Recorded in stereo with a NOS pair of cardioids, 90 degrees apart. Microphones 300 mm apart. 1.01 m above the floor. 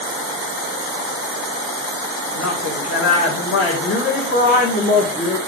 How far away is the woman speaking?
About 3.5 m.